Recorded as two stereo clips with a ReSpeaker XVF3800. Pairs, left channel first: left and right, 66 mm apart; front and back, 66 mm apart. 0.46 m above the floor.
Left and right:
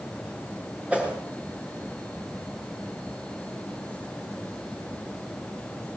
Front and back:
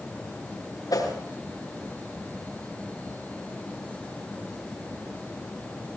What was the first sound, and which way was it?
A whoosh, 20° right.